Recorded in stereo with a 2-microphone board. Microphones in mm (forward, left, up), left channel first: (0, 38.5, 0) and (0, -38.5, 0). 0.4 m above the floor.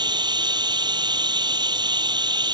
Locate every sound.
0.0 s running water: 75° right (ahead or behind)